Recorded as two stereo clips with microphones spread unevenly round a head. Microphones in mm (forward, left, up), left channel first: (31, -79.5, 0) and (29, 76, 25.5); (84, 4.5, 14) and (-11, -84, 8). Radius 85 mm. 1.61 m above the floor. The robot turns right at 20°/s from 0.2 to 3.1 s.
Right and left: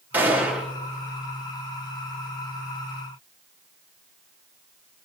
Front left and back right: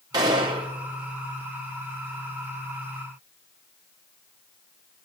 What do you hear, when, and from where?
0.1 s a gunshot: 160° left, 0.7 m; by 0.7 s 170° left, 0.7 m